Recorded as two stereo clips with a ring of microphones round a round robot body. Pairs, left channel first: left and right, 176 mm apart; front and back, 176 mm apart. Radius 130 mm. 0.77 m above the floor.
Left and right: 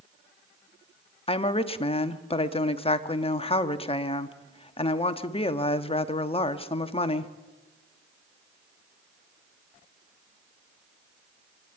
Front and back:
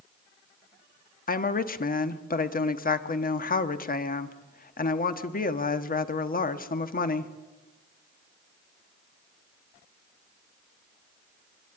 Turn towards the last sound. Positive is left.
turn(degrees=35)